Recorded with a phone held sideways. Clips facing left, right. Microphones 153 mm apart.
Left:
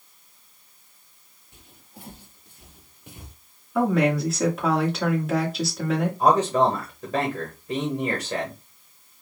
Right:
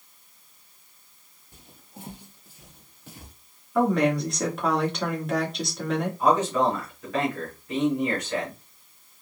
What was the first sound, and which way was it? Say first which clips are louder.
Footsteps: right 2 dB; 35° right (ahead or behind).